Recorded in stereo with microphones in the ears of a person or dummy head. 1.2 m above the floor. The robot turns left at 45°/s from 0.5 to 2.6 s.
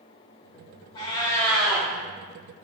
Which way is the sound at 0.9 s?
35° left.